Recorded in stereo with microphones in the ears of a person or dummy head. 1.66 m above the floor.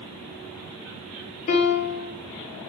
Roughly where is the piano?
Left.